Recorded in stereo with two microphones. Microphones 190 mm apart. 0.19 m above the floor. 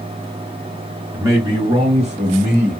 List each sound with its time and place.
1.1 s a man speaking: 15° right (ahead or behind), 1.0 m; by 2.8 s 45° right (ahead or behind), 1.8 m